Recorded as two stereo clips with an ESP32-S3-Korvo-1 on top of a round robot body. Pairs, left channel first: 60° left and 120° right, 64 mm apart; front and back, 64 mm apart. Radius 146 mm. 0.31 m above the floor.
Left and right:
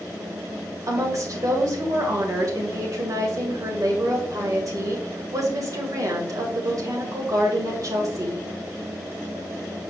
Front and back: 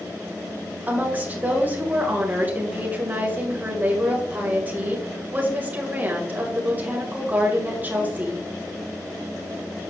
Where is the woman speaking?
120° right, 2.5 m.